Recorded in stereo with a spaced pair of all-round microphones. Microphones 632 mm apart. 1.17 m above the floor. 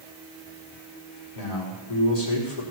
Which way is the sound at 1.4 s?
75° left (ahead or behind).